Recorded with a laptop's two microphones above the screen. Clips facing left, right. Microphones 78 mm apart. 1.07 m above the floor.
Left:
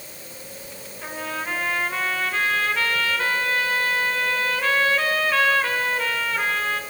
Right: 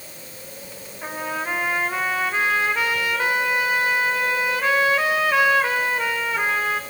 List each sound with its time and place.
1.0 s a trumpet: 20° right (ahead or behind), 4 m